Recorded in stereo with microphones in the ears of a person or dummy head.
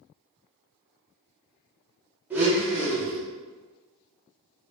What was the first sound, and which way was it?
A blender, 15° right (ahead or behind).